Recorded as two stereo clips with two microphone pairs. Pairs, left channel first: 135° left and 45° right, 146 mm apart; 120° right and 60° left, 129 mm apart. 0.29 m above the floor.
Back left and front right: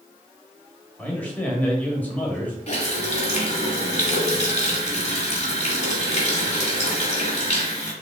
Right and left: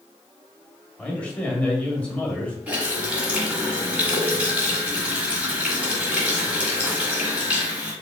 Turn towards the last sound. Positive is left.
turn(degrees=140)